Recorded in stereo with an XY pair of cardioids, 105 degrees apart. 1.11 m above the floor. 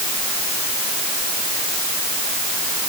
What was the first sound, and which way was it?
Only background noise.